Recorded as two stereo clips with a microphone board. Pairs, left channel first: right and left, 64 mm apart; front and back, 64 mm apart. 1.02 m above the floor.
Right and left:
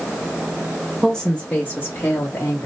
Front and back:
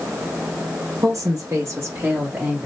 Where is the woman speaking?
Straight behind, 0.7 m; by 2.7 s 105° right, 1.3 m.